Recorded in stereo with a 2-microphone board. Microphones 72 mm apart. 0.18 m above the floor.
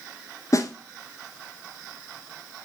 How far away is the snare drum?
About 0.9 m.